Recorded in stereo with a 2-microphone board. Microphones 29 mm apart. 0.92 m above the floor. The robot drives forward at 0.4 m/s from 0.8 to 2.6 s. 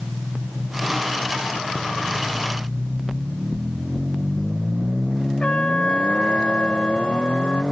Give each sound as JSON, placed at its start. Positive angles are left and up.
{"t": 3.1, "sound": "knocking", "side_deg": 45}
{"t": 5.4, "sound": "a trumpet", "side_deg": 40}